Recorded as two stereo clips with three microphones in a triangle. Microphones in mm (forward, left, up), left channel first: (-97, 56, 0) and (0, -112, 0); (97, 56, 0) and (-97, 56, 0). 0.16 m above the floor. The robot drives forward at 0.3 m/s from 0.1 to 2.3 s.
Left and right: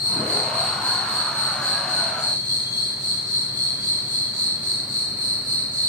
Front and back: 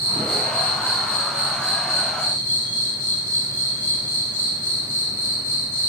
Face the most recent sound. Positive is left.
turn(degrees=130)